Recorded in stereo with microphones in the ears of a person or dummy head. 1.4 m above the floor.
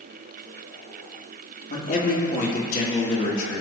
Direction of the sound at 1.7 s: 45° left (ahead or behind).